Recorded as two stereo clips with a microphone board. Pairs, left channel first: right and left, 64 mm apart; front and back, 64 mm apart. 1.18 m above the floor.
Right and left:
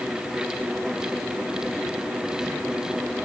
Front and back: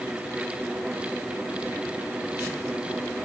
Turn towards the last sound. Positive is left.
No sound to turn to.